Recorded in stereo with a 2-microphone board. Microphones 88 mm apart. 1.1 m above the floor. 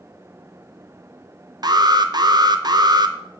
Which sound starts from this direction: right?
An alarm, at 1.6 s.